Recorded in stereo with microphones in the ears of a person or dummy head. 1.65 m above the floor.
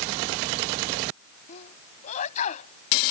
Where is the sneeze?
40° left (ahead or behind).